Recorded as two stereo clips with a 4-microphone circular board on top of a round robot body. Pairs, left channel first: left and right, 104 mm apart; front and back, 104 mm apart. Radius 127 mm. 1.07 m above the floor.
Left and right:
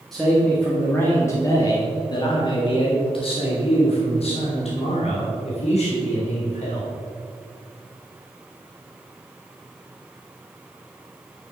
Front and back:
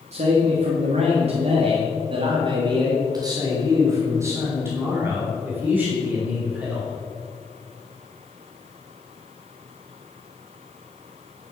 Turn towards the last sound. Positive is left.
turn(degrees=100)